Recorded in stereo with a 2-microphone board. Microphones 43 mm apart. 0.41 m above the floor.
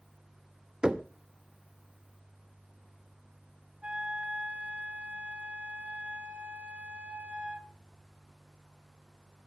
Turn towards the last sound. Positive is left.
turn(degrees=-35)  # may be behind; listen again after turning